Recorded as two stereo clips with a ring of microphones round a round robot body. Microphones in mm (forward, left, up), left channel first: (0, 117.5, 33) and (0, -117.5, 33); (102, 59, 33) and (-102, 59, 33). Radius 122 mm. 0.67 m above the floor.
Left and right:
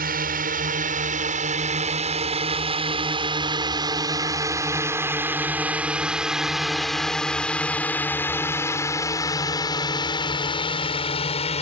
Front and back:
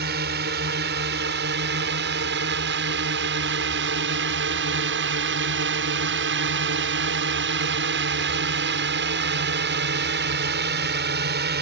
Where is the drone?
140° right; by 11.6 s 150° left.